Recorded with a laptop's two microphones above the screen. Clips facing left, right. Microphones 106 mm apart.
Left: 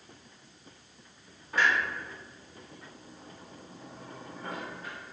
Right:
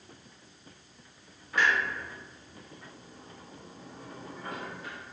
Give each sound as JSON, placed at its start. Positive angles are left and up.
{"t": 1.5, "sound": "a clunk", "side_deg": 35, "distance_m": 1.4}